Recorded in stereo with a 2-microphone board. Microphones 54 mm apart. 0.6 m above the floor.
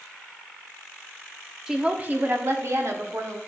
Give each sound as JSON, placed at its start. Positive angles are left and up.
{"t": 1.7, "sound": "a woman speaking", "side_deg": -10, "distance_m": 1.0}